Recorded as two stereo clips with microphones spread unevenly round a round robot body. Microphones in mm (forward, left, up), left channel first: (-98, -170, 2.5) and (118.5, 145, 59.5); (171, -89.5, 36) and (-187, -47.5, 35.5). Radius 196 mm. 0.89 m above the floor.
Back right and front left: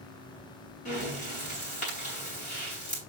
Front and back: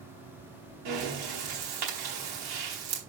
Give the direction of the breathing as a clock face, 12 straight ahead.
7 o'clock.